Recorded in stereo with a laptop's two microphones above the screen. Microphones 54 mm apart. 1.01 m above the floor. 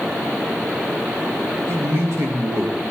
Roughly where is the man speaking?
Right.